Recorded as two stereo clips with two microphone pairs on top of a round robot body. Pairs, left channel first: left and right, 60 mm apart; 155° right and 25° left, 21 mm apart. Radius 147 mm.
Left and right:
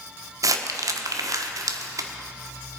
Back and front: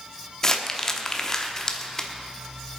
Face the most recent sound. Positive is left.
turn(degrees=-85)